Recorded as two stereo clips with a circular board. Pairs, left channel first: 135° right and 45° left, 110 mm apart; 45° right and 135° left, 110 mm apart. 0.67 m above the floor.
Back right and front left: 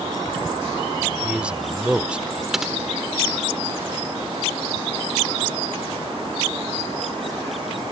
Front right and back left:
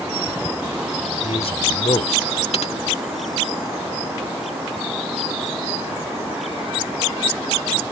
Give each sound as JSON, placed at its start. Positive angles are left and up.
{"t": 1.2, "sound": "a man speaking", "azimuth_deg": -35}
{"t": 2.5, "sound": "typing on a keyboard", "azimuth_deg": -40}